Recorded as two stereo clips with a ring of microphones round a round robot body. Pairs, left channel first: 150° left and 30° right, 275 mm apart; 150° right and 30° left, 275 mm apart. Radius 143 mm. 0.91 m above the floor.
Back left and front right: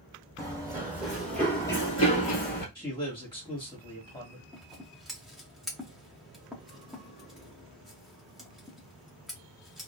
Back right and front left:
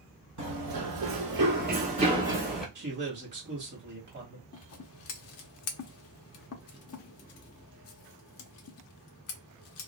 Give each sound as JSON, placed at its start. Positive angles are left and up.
{"t": 0.4, "sound": "running footsteps", "azimuth_deg": 45, "distance_m": 1.6}
{"t": 2.8, "sound": "a man speaking", "azimuth_deg": 75, "distance_m": 1.4}
{"t": 4.5, "sound": "scissors", "azimuth_deg": -120, "distance_m": 0.5}